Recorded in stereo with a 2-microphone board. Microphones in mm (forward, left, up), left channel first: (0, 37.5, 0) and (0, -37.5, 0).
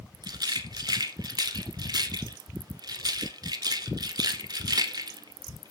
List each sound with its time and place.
0.2 s a rattle: 60° right (ahead or behind), 0.7 m